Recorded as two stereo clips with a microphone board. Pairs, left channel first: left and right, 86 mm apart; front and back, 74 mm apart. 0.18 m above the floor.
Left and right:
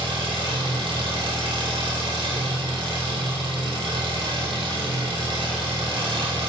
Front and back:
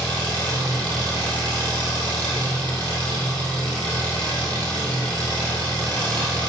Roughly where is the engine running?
Right.